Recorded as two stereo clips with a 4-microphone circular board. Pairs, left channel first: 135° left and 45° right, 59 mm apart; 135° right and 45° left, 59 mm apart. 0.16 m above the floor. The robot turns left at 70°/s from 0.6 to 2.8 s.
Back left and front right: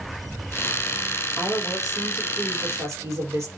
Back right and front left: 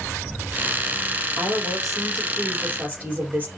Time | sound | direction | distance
1.4 | a woman speaking | 85° left | 4 m